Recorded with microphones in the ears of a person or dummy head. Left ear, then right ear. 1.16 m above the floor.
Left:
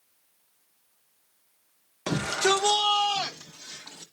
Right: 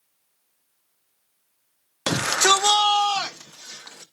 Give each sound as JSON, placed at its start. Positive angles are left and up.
{"t": 2.1, "sound": "a shout", "side_deg": -80, "distance_m": 0.5}